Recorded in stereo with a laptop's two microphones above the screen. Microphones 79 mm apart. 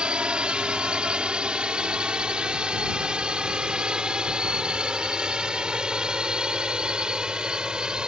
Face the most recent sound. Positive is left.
turn(degrees=-10)  # may be behind; listen again after turning